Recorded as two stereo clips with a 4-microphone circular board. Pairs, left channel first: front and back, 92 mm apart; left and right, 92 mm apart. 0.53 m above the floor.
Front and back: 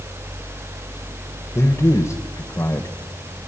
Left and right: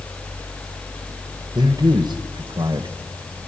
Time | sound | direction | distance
1.6 | a man speaking | 55° right | 2 m